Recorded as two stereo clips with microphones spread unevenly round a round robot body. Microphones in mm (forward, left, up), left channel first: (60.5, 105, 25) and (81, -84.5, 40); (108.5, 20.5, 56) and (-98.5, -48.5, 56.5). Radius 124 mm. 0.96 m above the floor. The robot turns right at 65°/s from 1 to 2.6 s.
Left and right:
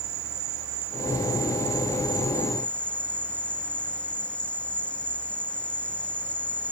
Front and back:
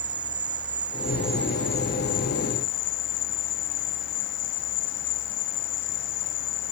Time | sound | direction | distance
0.0 | an insect | 90° right | ?